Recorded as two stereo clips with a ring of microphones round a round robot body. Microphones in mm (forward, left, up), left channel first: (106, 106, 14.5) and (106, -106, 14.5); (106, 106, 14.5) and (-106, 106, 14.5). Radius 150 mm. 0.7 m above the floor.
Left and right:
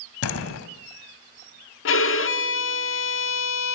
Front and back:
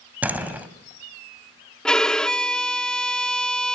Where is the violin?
85° left, 1.6 m.